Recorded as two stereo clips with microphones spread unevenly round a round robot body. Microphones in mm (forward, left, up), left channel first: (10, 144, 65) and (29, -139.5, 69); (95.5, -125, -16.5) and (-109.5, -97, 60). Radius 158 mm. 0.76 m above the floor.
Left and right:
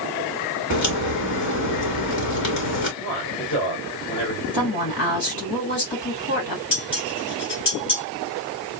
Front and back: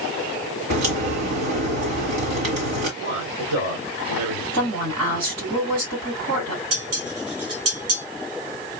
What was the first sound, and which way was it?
A crack, 145° left.